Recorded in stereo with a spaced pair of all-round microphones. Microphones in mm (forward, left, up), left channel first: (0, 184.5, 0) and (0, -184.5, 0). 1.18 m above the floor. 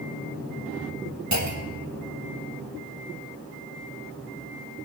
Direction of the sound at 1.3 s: 55° right (ahead or behind).